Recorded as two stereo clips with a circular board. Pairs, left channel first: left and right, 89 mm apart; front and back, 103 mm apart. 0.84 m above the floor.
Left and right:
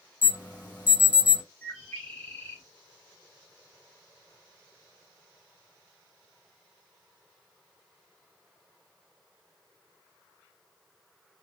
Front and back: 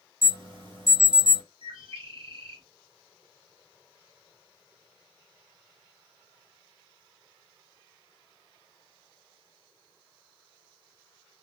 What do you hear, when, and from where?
0.2 s an alarm: 155° right, 2 m
1.6 s a bird: 165° left, 1.4 m